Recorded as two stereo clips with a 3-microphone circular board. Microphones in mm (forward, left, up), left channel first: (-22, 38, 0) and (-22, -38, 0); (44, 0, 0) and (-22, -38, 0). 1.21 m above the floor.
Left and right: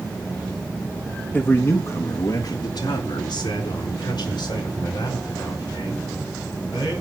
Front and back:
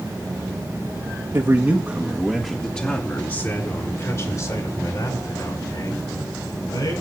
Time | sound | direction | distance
1.3 | a man speaking | 165° left | 1.9 m